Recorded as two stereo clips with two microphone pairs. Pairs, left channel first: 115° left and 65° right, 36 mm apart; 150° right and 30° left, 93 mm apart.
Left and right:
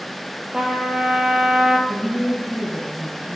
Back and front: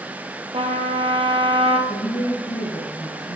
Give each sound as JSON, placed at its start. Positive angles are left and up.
{"t": 0.5, "sound": "a trumpet", "azimuth_deg": 5, "distance_m": 1.9}
{"t": 1.9, "sound": "a woman speaking", "azimuth_deg": -120, "distance_m": 3.5}